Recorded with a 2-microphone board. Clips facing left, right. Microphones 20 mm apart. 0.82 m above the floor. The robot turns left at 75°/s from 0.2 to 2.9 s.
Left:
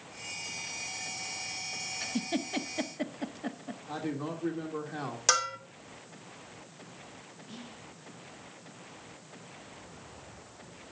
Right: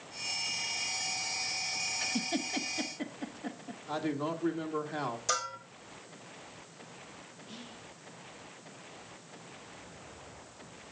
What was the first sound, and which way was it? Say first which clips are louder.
A giggle: even; 5° right (ahead or behind).